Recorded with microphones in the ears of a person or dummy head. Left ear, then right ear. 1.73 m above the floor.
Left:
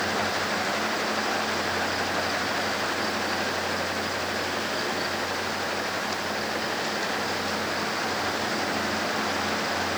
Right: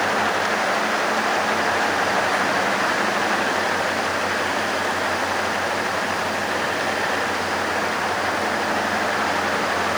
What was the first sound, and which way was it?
Only background noise.